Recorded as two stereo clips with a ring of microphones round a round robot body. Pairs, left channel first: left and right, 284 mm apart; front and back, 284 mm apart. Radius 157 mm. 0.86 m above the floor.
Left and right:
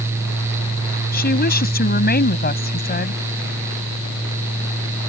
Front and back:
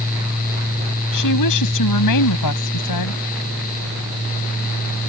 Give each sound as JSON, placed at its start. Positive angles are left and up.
{"t": 1.1, "sound": "a woman speaking", "azimuth_deg": 35}